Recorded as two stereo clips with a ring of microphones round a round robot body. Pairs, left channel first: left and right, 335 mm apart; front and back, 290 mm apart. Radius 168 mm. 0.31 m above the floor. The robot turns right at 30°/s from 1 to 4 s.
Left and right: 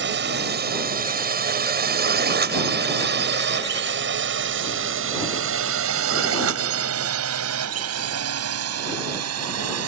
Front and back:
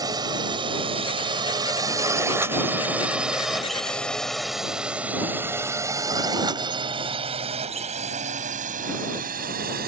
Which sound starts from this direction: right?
A drone, at 0.0 s.